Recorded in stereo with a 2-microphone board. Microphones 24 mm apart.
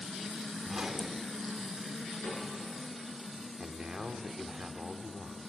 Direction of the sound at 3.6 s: 30° right (ahead or behind).